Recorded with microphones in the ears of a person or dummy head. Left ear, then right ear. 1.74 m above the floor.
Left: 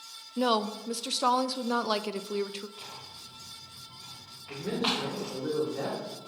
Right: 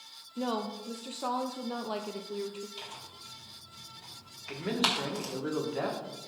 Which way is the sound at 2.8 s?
80° right.